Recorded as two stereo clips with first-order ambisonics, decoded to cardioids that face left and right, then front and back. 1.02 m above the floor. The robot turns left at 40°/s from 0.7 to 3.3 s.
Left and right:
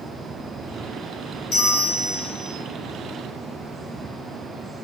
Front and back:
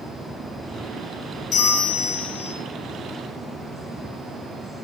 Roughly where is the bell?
Ahead left.